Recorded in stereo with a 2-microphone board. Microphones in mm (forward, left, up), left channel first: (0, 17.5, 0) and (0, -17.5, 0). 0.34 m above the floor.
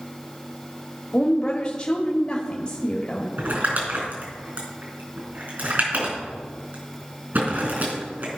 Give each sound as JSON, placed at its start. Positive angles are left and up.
{"t": 1.1, "sound": "a woman speaking", "side_deg": 30, "distance_m": 1.0}
{"t": 3.4, "sound": "crumpling", "side_deg": -65, "distance_m": 4.0}